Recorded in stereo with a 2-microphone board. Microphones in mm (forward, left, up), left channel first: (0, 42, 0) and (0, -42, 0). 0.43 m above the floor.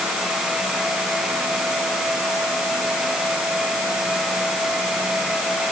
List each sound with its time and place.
Only background noise.